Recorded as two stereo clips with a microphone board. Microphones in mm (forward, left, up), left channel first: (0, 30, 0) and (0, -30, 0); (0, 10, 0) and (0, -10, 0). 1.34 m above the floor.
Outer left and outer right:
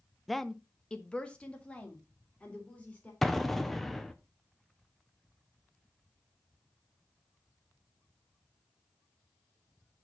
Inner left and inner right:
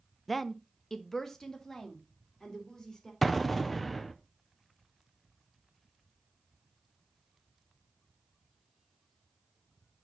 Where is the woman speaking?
Centre (ahead or behind), 0.5 m; by 3.1 s 25° left (ahead or behind), 4 m.